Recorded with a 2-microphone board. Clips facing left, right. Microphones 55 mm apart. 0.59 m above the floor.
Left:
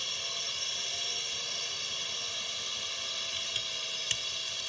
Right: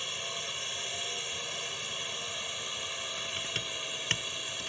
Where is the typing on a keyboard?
50° right (ahead or behind).